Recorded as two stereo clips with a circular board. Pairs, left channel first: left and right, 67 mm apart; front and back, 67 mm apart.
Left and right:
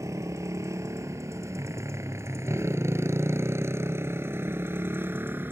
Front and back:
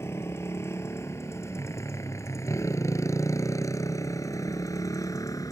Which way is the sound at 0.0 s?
50° right.